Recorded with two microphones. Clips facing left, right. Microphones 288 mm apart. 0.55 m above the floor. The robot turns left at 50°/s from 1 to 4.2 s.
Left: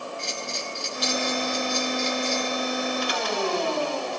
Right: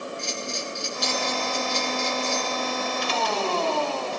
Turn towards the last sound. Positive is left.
turn(degrees=0)